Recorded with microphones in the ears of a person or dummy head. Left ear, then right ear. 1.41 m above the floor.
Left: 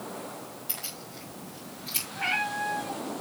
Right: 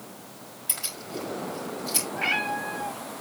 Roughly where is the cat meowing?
Centre.